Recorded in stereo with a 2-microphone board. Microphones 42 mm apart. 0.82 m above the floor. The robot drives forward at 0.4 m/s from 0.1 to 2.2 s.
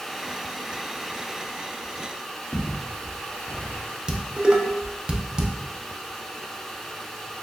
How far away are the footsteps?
About 2.0 m.